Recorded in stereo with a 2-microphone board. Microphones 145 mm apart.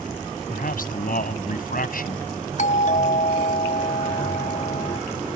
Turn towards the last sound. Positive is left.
turn(degrees=55)  # may be behind; listen again after turning